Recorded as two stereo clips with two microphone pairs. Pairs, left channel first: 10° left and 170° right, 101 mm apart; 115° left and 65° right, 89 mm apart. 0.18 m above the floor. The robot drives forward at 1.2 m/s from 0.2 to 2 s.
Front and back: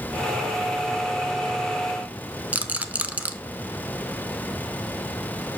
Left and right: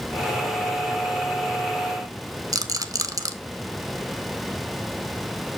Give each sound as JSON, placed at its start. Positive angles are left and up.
{"t": 2.5, "sound": "a rattle", "azimuth_deg": -100, "distance_m": 0.7}